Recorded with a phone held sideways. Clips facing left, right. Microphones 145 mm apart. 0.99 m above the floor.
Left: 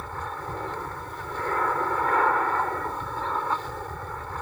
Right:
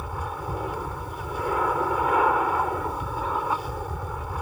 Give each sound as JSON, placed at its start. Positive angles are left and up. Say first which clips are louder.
{"t": 0.0, "sound": "an aircraft", "louder": "right 2 dB", "side_deg": -10}